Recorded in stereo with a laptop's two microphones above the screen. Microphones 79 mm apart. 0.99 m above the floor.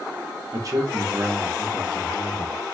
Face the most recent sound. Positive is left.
turn(degrees=45)  # may be behind; listen again after turning